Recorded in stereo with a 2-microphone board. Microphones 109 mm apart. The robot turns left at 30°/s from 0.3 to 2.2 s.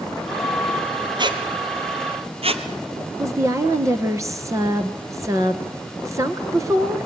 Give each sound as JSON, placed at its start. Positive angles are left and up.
{"t": 1.2, "sound": "a squeak", "side_deg": -50, "distance_m": 1.6}
{"t": 3.2, "sound": "a woman speaking", "side_deg": -30, "distance_m": 1.9}